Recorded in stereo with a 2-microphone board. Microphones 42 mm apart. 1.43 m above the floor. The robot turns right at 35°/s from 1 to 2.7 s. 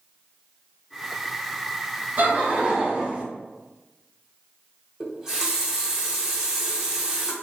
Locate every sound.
2.2 s laughter: 40° right (ahead or behind), 0.8 m; by 3.2 s 25° right (ahead or behind), 0.8 m
5.0 s a running tap: 15° right (ahead or behind), 0.5 m